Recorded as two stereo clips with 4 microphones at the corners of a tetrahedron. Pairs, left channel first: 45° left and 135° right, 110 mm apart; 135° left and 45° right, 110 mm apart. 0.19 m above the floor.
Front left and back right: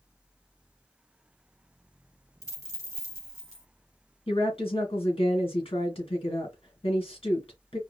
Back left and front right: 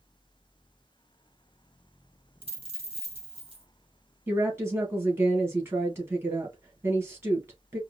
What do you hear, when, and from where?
2.4 s a dropped coin: 15° right, 2.5 m
4.3 s a woman speaking: 20° left, 2.5 m